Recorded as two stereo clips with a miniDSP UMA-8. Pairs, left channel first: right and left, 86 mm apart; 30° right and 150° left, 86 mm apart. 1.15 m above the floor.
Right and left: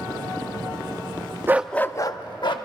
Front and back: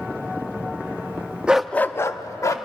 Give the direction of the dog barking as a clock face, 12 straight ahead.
9 o'clock.